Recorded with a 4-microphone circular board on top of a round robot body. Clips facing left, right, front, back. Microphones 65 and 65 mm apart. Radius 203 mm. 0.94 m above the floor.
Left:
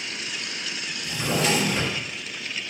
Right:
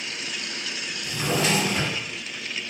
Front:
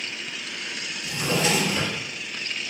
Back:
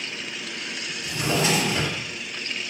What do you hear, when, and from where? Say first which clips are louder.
1.0 s a drawer: even, back 1 dB; 120° right, 1.5 m